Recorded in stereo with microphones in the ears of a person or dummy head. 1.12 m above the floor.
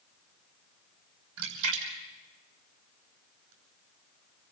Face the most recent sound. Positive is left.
turn(degrees=-80)